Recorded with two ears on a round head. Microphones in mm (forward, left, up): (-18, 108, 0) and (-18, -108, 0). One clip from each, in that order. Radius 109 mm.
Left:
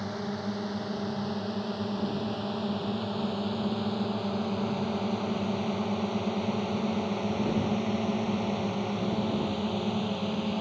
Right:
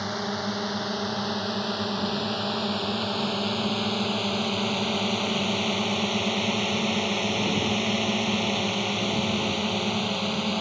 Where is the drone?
55° right (ahead or behind); by 10.6 s 45° right (ahead or behind).